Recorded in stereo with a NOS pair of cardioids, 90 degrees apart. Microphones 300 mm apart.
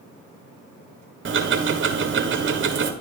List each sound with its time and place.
1.2 s ticking: 40° right, 1.3 m